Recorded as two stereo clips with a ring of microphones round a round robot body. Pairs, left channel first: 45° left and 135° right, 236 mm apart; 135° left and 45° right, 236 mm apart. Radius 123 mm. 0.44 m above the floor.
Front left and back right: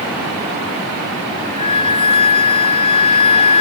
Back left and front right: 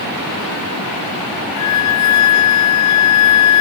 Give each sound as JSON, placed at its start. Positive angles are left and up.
{"t": 1.6, "sound": "a flute", "azimuth_deg": 115, "distance_m": 1.3}